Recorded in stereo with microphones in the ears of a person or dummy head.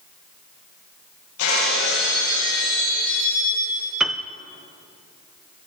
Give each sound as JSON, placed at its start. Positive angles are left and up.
{"t": 1.4, "sound": "breaking glass", "side_deg": 75, "distance_m": 9.0}
{"t": 4.0, "sound": "a piano", "side_deg": 0, "distance_m": 0.6}